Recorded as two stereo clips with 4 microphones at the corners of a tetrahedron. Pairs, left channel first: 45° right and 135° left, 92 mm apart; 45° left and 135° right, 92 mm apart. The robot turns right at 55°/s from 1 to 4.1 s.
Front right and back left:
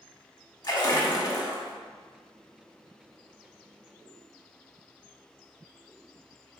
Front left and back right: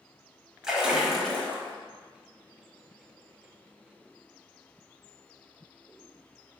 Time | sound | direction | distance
0.6 | a splash | 50° right | 0.8 m